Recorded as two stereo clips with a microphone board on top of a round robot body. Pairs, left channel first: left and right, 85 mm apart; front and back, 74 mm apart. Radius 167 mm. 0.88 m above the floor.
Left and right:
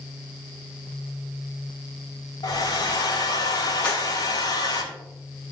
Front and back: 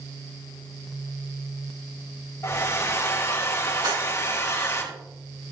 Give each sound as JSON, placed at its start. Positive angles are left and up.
{"t": 2.4, "sound": "a hair dryer", "azimuth_deg": 50, "distance_m": 6.0}
{"t": 3.8, "sound": "a clap", "azimuth_deg": 165, "distance_m": 6.0}